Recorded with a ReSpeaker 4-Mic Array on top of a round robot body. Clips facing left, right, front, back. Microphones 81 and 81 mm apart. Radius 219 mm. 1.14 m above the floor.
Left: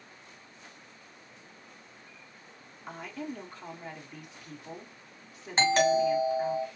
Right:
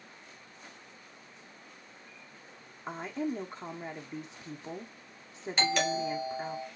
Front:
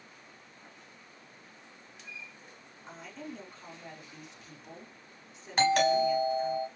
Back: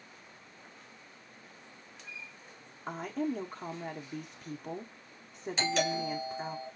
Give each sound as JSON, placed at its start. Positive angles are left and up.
{"t": 2.9, "sound": "a woman speaking", "azimuth_deg": -145, "distance_m": 0.9}
{"t": 5.6, "sound": "a doorbell", "azimuth_deg": 35, "distance_m": 2.5}